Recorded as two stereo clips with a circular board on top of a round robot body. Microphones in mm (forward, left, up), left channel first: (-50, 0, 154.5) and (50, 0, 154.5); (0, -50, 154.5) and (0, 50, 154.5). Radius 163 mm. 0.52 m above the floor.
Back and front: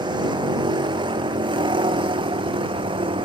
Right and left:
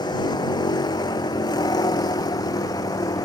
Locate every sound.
0.0 s a vehicle: 45° right; by 3.2 s 35° right